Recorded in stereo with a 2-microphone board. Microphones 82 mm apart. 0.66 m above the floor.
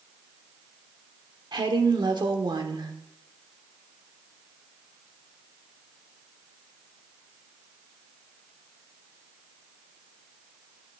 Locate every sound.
1.5 s a woman speaking: 60° right (ahead or behind), 1.4 m